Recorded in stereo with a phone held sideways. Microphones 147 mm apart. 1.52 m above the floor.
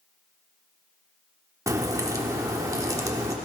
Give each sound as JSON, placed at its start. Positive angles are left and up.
{"t": 1.7, "sound": "a crack", "side_deg": -20, "distance_m": 1.2}